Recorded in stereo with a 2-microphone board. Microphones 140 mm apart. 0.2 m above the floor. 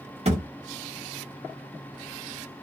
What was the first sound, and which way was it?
A thud, 50° right (ahead or behind).